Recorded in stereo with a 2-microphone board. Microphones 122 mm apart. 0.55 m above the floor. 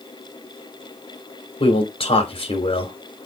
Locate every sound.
1.6 s a man speaking: 50° left (ahead or behind), 3 m